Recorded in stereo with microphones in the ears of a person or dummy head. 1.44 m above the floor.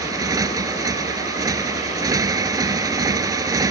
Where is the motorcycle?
25° right (ahead or behind).